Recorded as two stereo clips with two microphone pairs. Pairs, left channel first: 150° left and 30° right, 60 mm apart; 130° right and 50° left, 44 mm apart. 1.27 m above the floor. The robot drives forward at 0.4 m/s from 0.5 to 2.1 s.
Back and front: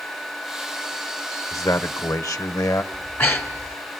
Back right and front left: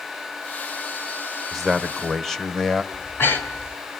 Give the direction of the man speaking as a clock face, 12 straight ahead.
7 o'clock.